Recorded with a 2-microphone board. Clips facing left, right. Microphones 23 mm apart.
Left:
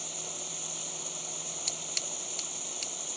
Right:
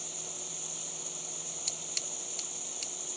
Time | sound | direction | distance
0.0 | running water | 15° left (ahead or behind) | ?
1.7 | scissors | 20° left (ahead or behind) | ?